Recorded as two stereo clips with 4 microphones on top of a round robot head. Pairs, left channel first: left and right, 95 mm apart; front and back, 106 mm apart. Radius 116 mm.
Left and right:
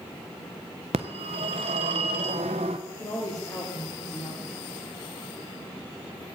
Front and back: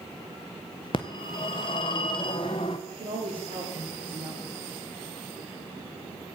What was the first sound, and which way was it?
A phone ringing, 55° right.